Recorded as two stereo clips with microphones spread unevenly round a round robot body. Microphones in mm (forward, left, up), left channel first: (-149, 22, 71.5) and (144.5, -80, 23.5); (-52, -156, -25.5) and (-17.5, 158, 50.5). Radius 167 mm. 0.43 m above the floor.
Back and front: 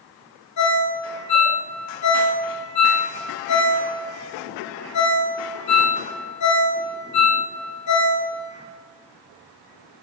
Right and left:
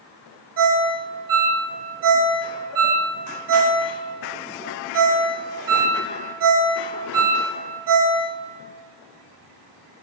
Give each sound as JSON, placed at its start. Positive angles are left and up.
{"t": 0.6, "sound": "a ringtone", "azimuth_deg": 120, "distance_m": 0.8}